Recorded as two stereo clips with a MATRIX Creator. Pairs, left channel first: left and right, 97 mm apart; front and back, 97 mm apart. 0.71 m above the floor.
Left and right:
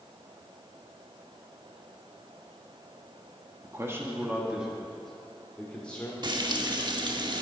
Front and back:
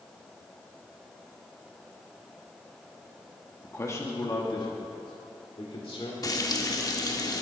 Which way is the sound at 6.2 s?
50° right.